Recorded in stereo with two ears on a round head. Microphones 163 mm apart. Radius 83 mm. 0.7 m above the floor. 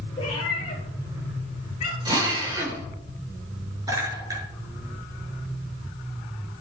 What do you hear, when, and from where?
0.2 s a cat meowing: 25° left (ahead or behind), 7.5 m; by 1.9 s 35° left (ahead or behind), 6.5 m
2.0 s a drill: 25° right (ahead or behind), 3 m
3.9 s a clink: 20° right (ahead or behind), 7 m